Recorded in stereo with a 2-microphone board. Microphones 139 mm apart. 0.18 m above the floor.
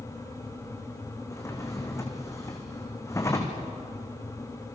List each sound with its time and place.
1.3 s a drawer: 20° left (ahead or behind), 3.5 m